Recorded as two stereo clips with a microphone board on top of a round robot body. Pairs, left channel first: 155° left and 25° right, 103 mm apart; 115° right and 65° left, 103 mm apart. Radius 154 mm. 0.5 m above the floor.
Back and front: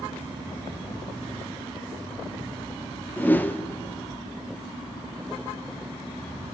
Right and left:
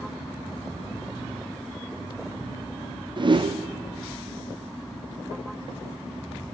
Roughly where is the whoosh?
Left.